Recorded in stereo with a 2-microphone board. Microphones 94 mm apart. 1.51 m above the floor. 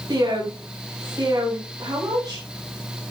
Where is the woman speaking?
40° right (ahead or behind), 7 m.